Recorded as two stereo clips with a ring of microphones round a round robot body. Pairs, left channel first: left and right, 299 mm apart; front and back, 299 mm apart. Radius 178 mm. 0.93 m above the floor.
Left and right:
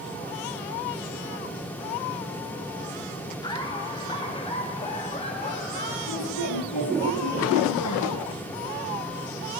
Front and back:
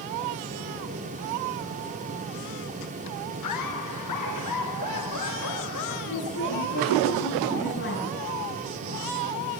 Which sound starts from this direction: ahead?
Laughter, at 3.4 s.